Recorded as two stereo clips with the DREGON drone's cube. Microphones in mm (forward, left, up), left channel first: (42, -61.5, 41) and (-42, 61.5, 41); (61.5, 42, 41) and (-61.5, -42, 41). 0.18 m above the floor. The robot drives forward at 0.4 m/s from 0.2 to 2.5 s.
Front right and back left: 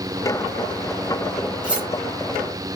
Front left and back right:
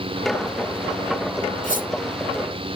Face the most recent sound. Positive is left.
turn(degrees=55)